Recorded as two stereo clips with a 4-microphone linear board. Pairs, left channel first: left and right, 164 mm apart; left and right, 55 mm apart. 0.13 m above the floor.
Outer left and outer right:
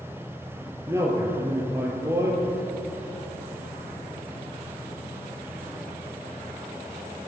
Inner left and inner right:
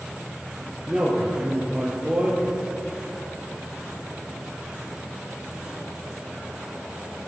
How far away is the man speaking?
About 2.5 m.